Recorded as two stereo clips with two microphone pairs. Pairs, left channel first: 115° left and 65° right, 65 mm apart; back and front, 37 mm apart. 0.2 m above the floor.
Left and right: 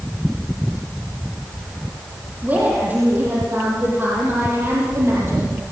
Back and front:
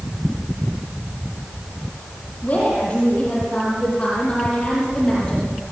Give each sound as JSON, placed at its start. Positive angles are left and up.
{"t": 2.4, "sound": "a woman speaking", "azimuth_deg": -130, "distance_m": 9.0}